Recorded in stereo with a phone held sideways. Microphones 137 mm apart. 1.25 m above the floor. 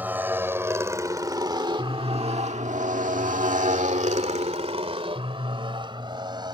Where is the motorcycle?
15° right (ahead or behind); by 6.5 s 35° right (ahead or behind).